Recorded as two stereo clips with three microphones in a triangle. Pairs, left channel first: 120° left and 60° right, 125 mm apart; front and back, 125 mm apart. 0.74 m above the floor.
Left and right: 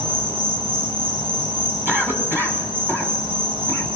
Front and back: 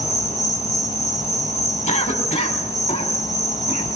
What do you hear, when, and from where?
0.0 s an insect: 15° right, 5 m
1.9 s a cough: 15° left, 5.5 m